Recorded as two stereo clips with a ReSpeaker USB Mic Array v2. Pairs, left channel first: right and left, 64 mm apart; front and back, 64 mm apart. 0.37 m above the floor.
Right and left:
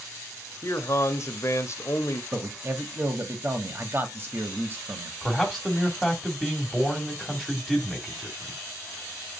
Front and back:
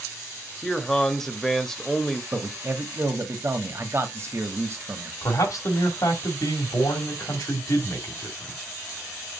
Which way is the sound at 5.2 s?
Straight ahead.